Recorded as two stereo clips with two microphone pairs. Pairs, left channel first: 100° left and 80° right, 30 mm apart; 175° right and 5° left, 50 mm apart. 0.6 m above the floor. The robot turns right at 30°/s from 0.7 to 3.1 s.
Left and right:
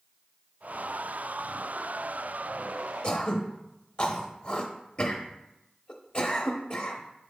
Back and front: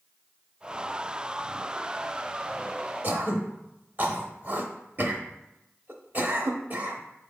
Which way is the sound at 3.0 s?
50° left.